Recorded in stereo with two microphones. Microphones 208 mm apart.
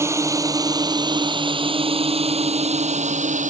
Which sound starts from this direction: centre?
A drone, at 0.0 s.